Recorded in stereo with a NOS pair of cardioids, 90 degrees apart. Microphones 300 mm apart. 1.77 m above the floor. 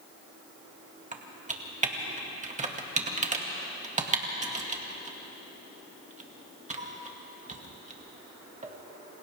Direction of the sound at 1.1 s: 25° right.